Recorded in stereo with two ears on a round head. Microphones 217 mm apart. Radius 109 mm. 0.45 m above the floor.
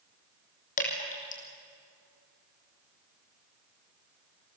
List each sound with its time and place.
0.8 s dripping: 35° left (ahead or behind), 4.5 m